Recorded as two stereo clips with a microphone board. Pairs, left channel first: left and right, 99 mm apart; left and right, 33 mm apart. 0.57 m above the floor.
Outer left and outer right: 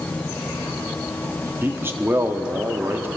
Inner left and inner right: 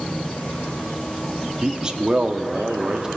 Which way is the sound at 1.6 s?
25° right (ahead or behind).